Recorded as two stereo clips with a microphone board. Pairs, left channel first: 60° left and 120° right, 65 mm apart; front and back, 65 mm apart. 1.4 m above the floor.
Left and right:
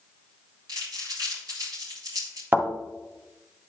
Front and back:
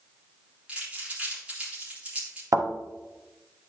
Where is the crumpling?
110° right, 3.5 m.